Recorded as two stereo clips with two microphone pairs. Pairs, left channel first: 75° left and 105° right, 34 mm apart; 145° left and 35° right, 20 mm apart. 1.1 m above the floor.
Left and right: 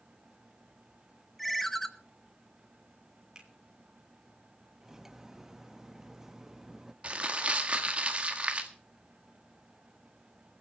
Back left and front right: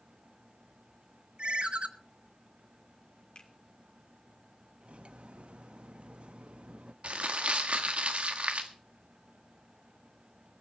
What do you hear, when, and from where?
1.4 s a ringtone: 10° right, 0.9 m
3.4 s a finger snap: 175° right, 3 m
4.8 s cutlery clinking: 30° right, 0.7 m
7.0 s crumpling: 50° right, 1.6 m